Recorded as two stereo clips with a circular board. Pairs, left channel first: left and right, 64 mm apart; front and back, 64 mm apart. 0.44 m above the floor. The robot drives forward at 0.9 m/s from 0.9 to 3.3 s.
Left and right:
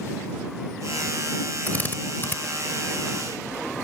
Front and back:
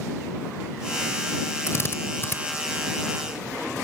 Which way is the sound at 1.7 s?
35° left.